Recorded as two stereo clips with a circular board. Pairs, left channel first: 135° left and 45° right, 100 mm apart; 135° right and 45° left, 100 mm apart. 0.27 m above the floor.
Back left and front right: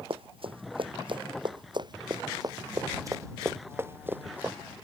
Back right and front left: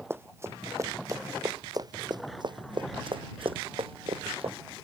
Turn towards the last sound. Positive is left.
turn(degrees=30)